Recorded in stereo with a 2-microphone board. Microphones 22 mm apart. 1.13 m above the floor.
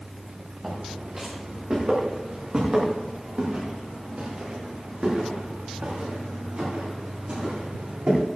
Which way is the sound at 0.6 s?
20° right (ahead or behind).